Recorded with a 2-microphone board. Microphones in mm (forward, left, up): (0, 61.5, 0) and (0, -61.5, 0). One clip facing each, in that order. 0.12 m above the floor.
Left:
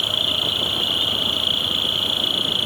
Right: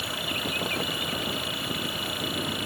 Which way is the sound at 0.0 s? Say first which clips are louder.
Left 3 dB; 10° left (ahead or behind).